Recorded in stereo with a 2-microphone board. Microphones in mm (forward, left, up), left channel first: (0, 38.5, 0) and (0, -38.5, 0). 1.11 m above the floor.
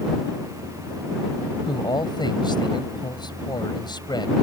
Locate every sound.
1.7 s a man speaking: 70° left (ahead or behind)